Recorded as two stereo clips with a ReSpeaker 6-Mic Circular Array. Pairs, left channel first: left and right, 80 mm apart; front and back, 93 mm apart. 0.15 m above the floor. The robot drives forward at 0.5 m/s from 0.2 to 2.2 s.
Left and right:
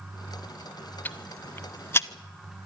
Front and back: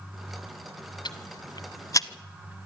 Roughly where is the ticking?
Ahead left.